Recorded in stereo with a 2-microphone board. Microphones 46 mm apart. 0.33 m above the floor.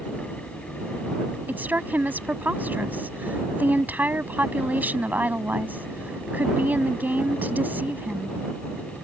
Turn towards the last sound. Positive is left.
turn(degrees=-40)  # may be behind; listen again after turning